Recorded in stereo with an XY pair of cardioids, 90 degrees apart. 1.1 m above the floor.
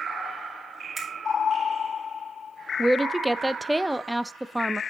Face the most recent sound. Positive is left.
turn(degrees=-5)